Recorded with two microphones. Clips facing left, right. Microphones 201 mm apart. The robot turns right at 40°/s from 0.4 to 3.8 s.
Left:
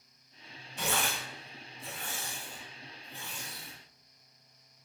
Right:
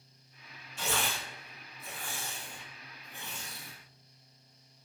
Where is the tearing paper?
60° left (ahead or behind), 0.9 m; by 3.7 s 35° right (ahead or behind), 0.9 m.